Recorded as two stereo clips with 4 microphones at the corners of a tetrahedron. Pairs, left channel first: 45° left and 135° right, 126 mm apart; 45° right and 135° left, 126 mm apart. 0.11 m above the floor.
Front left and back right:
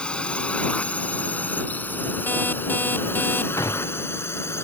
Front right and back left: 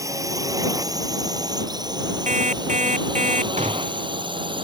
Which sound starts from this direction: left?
A gunshot, at 3.6 s.